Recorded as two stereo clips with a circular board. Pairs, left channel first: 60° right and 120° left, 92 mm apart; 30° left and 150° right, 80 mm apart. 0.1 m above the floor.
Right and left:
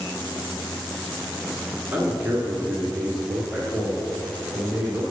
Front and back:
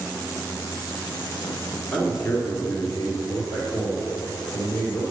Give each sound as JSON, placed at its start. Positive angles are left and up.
{"t": 1.9, "sound": "a man speaking", "azimuth_deg": 75, "distance_m": 1.4}